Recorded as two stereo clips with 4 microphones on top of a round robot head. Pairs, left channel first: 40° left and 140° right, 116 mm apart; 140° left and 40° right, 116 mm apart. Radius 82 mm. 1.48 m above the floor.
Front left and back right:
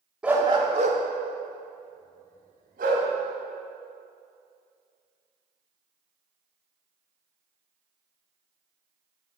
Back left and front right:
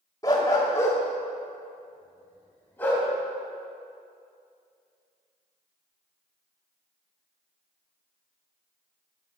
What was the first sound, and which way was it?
A dog barking, 150° left.